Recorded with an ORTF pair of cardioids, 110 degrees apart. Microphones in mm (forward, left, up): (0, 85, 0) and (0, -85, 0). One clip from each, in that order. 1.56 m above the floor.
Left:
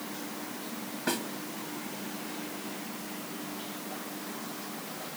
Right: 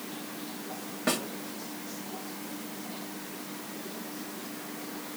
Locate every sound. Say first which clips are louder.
1.1 s a snare drum: right 3 dB; 35° right, 2 m